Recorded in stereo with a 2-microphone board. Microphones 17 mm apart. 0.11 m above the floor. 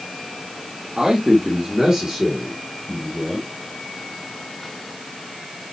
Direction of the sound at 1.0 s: 40° right (ahead or behind).